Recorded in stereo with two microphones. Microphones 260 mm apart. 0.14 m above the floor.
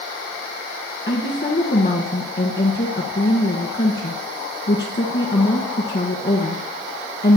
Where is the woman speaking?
45° left (ahead or behind), 1.5 m.